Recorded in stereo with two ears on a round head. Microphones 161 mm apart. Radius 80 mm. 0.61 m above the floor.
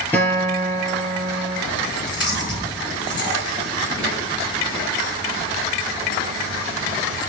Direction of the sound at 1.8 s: 25° left (ahead or behind).